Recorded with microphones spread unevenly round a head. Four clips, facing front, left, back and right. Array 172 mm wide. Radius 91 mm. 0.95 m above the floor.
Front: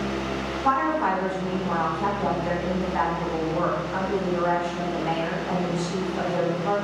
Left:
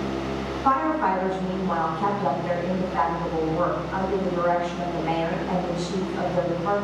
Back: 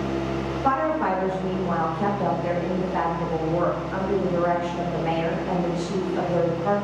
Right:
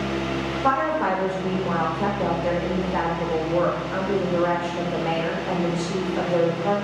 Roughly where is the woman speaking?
Behind right.